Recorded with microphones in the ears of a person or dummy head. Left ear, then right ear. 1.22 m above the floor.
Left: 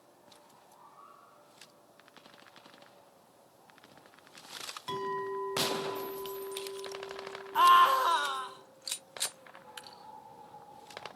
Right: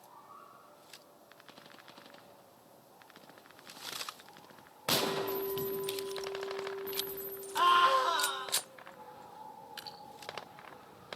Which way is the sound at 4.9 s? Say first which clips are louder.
Right 4 dB; 75° left (ahead or behind).